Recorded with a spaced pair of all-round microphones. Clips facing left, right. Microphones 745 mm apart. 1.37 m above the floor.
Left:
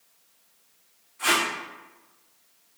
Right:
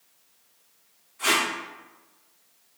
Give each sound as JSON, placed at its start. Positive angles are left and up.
{"t": 1.2, "sound": "tape being pulled", "side_deg": -30, "distance_m": 2.0}